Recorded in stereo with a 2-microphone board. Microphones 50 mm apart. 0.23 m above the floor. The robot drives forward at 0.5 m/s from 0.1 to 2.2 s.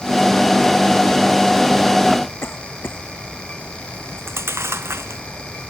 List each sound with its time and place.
2.4 s a cough: 50° left (ahead or behind)
3.9 s chewing: 60° right (ahead or behind)